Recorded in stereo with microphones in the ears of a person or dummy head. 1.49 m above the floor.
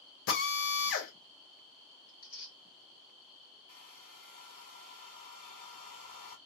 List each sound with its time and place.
0.3 s a drill: 65° left (ahead or behind), 0.9 m
2.1 s tearing paper: 60° left (ahead or behind), 1.2 m
3.7 s a hair dryer: 45° left (ahead or behind), 1.1 m